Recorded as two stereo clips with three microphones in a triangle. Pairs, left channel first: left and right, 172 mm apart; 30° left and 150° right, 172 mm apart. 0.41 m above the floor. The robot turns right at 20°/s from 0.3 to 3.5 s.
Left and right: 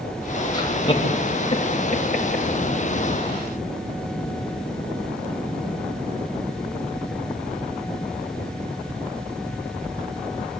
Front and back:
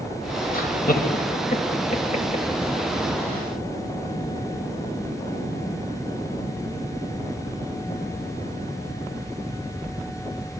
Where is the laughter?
30° left, 2.5 m; by 2.5 s 70° left, 2.5 m.